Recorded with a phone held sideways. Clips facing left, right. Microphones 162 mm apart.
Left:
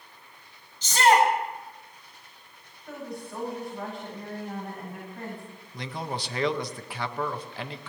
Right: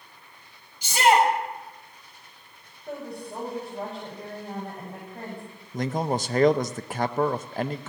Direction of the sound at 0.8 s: 10° right (ahead or behind).